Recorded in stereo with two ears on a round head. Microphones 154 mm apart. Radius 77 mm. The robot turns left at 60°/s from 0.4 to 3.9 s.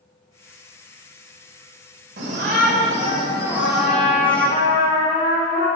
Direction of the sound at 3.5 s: 15° left (ahead or behind).